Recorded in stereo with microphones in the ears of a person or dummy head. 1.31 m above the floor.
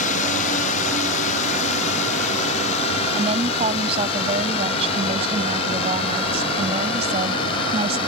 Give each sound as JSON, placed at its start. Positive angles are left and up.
{"t": 0.0, "sound": "a drone", "side_deg": 40}
{"t": 3.1, "sound": "a woman speaking", "side_deg": -30}